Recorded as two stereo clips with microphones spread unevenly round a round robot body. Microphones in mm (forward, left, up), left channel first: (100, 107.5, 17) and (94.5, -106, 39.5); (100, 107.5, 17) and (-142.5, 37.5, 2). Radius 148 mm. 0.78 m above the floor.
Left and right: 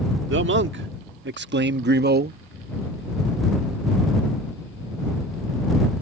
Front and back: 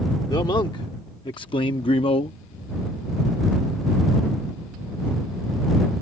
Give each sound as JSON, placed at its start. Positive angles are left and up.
{"t": 0.3, "sound": "a man speaking", "azimuth_deg": -60}